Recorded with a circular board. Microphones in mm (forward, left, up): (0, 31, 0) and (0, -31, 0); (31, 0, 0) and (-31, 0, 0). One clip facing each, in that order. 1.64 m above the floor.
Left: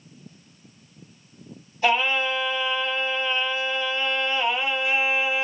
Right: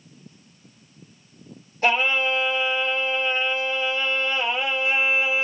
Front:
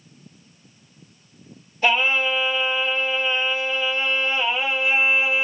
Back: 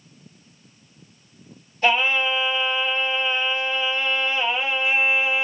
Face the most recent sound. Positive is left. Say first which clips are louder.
# right 1 dB, even
turn(degrees=-85)